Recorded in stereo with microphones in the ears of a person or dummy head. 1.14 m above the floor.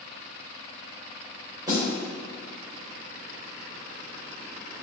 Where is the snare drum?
20° right (ahead or behind), 3.5 m.